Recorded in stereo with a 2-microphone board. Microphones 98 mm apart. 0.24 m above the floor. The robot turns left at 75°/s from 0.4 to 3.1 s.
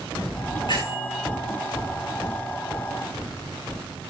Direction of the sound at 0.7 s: 130° left.